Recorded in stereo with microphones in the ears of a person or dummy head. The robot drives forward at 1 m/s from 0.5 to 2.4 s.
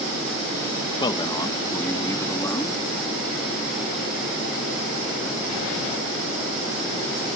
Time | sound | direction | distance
1.0 | a man speaking | 25° left (ahead or behind) | ?